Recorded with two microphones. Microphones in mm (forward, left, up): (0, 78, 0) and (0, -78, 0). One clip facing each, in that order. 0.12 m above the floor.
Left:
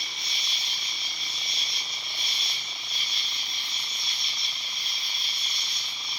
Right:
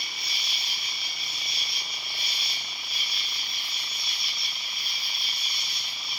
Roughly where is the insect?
Centre.